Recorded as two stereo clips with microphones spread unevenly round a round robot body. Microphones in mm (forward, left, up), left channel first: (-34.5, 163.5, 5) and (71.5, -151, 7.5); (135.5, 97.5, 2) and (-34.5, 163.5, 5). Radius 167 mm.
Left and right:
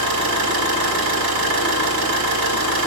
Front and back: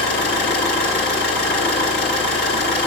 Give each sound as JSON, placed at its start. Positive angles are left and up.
{"t": 0.0, "sound": "an engine running", "azimuth_deg": -40, "distance_m": 1.5}